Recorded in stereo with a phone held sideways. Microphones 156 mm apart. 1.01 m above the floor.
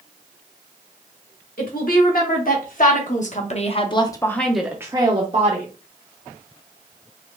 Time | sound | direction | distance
1.6 | a woman speaking | 70° left (ahead or behind) | 2 m